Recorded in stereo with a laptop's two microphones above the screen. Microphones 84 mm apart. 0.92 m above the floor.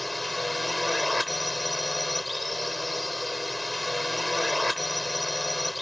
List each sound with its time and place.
0.0 s a drone: centre (ahead or behind)